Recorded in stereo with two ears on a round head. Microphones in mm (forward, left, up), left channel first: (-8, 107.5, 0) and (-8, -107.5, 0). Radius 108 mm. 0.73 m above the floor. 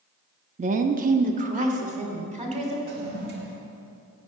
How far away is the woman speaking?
About 0.6 m.